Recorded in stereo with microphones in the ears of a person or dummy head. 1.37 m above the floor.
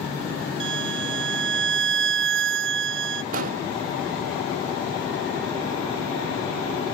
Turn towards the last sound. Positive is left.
turn(degrees=-55)  # may be behind; listen again after turning